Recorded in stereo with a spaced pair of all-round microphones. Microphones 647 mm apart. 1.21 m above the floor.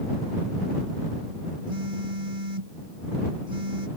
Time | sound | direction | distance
1.7 | a phone buzzing | 55° right (ahead or behind) | ?